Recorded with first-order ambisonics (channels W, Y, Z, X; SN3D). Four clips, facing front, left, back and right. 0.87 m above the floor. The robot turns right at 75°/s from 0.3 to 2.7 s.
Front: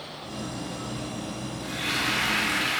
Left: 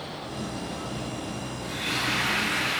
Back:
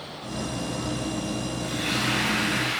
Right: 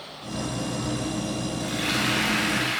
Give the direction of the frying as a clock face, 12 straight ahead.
3 o'clock.